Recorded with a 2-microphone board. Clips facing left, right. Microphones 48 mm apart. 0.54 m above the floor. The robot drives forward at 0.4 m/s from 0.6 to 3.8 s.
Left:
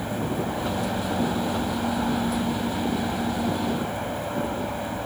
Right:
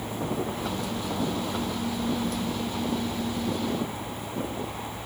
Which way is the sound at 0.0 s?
50° left (ahead or behind).